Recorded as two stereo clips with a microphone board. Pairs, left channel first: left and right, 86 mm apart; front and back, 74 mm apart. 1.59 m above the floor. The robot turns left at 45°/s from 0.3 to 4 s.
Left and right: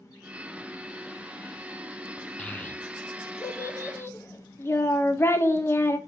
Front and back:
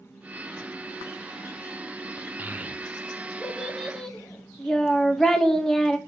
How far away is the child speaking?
About 0.5 m.